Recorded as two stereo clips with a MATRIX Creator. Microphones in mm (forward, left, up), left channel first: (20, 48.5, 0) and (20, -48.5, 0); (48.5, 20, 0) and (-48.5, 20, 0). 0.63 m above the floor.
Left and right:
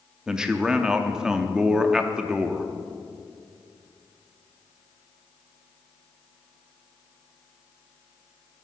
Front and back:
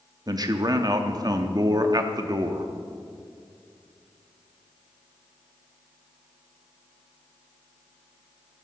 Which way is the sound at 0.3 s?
170° right.